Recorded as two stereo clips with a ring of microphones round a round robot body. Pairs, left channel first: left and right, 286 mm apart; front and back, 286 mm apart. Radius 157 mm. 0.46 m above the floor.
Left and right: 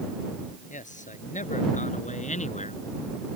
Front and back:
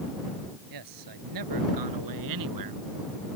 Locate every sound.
0.7 s a man speaking: 155° left